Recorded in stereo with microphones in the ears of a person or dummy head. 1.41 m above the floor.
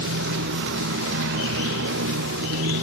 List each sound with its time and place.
0.0 s a motorcycle: 65° right (ahead or behind)